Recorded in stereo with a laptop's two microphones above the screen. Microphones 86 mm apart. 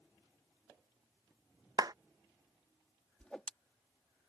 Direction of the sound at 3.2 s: 10° left (ahead or behind).